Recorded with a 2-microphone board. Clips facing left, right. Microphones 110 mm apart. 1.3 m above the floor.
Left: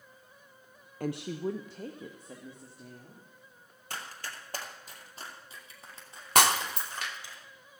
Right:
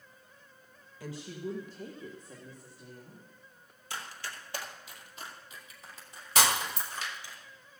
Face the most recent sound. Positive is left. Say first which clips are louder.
# left 4 dB
turn(degrees=60)  # may be behind; listen again after turning